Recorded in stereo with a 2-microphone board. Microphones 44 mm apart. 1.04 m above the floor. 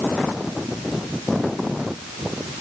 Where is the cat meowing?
No cat meowing in this recording.